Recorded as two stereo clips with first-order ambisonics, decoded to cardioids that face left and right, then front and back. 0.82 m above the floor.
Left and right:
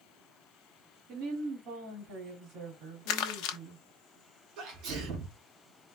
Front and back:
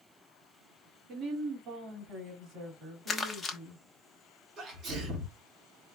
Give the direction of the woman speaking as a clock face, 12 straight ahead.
4 o'clock.